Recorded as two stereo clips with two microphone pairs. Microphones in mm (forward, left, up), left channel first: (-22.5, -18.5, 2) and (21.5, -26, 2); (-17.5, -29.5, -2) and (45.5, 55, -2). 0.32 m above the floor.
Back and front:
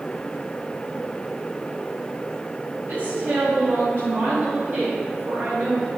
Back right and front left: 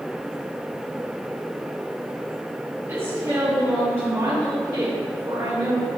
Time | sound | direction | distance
2.9 | a woman speaking | 5° right | 1.9 m